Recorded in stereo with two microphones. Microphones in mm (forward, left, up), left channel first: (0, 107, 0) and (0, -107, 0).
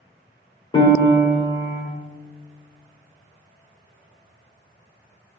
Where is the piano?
25° left (ahead or behind), 1.8 m.